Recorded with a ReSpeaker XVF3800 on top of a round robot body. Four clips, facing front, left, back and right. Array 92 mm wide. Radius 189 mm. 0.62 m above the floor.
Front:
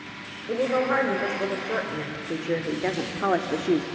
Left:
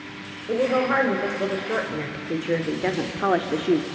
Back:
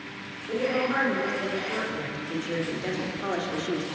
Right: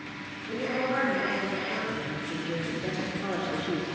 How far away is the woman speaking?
About 4.5 m.